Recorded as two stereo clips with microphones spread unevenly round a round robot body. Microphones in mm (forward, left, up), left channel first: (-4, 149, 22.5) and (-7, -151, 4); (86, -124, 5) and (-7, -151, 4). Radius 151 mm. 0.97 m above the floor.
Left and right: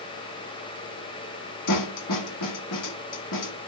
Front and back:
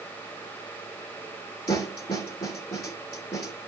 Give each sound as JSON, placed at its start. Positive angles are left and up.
{"t": 1.7, "sound": "a snare drum", "azimuth_deg": 70, "distance_m": 1.9}